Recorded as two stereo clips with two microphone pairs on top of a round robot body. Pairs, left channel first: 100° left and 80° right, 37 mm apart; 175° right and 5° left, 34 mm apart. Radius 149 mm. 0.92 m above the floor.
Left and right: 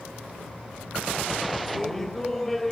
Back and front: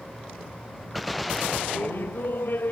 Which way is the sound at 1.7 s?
Straight behind.